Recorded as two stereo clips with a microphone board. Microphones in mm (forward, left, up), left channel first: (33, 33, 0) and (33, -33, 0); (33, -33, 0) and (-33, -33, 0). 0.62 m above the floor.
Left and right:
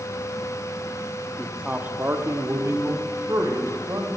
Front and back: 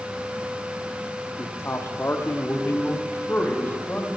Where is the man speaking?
5° right, 0.8 m; by 4.1 s 60° right, 2.5 m.